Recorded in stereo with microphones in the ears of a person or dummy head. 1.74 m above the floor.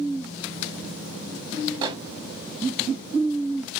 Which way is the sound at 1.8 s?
25° right (ahead or behind).